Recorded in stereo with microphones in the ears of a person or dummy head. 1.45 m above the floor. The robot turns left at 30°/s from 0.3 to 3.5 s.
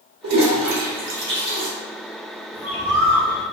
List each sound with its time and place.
0.2 s a toilet flushing: 75° right (ahead or behind), 1.0 m; by 1.7 s 35° right (ahead or behind), 1.0 m
2.5 s a bird: 10° right (ahead or behind), 0.8 m; by 3.5 s 20° left (ahead or behind), 0.8 m